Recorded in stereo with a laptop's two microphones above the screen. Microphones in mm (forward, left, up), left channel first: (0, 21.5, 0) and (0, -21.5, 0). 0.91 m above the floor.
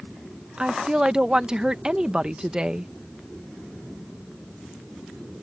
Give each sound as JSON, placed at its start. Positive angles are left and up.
{"t": 0.6, "sound": "a woman speaking", "side_deg": -20}